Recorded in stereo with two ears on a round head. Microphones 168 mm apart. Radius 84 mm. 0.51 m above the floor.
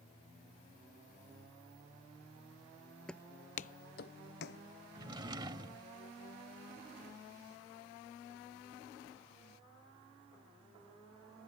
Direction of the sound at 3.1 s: 5° left (ahead or behind).